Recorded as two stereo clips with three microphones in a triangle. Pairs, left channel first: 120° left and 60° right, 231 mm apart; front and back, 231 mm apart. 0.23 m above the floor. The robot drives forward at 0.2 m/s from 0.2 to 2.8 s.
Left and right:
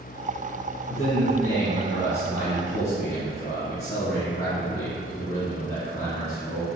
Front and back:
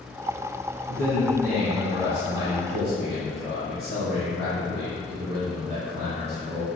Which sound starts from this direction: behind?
A man speaking, at 0.9 s.